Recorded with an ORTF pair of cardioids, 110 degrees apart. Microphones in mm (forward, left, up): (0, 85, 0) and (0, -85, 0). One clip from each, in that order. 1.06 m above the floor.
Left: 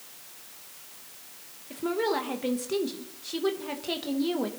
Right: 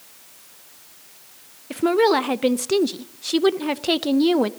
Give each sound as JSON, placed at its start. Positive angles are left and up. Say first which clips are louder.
{"t": 1.7, "sound": "a woman speaking", "louder": "right 10 dB", "azimuth_deg": -50, "distance_m": 0.5}